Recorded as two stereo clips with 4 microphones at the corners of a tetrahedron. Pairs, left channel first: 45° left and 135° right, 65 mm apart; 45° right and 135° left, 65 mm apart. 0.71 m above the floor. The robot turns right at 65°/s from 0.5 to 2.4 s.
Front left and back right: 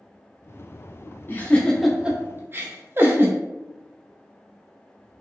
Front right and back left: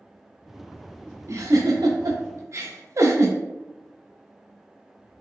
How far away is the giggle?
About 0.6 m.